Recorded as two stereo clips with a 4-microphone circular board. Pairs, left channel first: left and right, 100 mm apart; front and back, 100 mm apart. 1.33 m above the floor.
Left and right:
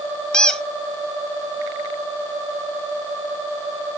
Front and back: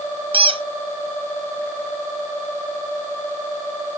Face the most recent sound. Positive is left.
turn(degrees=175)